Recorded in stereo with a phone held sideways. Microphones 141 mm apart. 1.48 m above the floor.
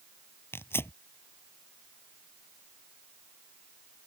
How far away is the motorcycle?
I don't hear a motorcycle.